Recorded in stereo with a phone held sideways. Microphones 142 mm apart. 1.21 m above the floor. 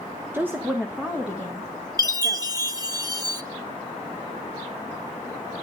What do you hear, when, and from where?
0.3 s a woman speaking: 15° right (ahead or behind), 0.8 m; by 2.6 s 5° right (ahead or behind), 3.5 m
2.0 s a chime: 25° right (ahead or behind), 1.2 m